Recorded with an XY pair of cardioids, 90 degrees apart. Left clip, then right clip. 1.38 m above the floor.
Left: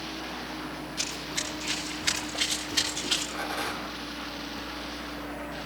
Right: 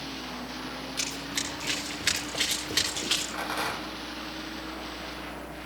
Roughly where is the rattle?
Ahead right.